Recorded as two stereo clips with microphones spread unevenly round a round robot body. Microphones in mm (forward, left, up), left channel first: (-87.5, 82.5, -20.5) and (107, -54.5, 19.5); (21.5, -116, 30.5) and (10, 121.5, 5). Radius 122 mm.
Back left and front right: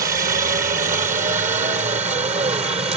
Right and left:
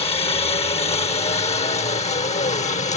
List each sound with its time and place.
0.0 s a helicopter: 45° right; by 3.0 s 85° right